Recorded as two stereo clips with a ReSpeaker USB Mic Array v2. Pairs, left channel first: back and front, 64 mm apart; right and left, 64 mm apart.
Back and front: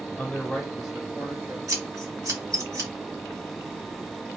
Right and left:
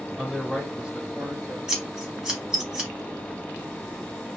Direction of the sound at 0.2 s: 165° left.